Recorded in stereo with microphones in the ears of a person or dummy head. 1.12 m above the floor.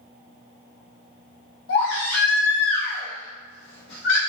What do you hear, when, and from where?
1.7 s a baby crying: 75° left (ahead or behind), 1.4 m